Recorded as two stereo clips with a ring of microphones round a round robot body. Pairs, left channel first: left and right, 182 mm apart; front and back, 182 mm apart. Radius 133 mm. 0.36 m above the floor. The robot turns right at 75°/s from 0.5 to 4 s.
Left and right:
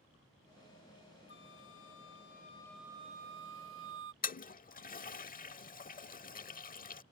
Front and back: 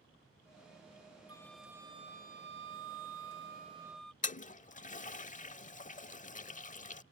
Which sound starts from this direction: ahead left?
A toilet flushing, at 4.2 s.